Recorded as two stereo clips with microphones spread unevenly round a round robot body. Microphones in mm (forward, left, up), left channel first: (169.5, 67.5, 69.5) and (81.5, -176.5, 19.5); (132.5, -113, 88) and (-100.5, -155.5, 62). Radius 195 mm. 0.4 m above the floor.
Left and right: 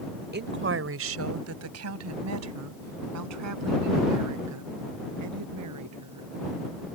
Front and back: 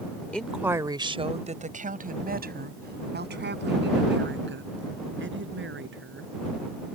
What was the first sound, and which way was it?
A woman speaking, 80° right.